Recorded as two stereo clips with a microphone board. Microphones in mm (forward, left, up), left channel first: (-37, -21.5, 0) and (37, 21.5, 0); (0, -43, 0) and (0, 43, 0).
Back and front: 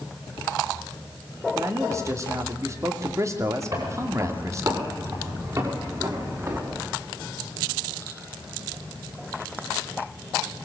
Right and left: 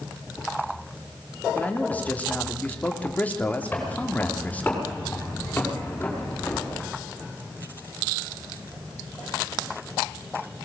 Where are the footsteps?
20° right, 8 m.